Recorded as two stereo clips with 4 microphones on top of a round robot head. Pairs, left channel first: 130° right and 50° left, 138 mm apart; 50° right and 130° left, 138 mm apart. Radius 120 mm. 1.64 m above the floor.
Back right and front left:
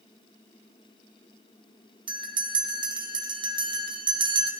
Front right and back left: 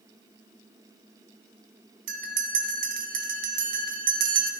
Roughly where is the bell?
Left.